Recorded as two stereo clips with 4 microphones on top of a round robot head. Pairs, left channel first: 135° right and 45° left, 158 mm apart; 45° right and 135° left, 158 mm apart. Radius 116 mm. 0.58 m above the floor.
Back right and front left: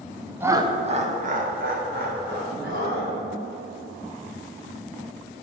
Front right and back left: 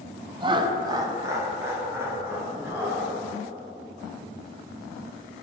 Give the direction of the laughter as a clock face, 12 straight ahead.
8 o'clock.